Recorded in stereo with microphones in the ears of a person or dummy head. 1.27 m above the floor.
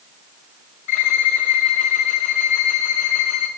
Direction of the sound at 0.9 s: 45° left (ahead or behind).